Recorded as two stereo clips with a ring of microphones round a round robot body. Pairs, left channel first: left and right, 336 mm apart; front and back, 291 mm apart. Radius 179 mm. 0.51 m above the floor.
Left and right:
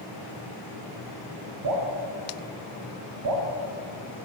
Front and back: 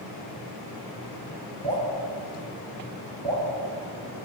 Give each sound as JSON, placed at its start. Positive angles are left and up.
{"t": 1.6, "sound": "dripping", "azimuth_deg": -95, "distance_m": 1.2}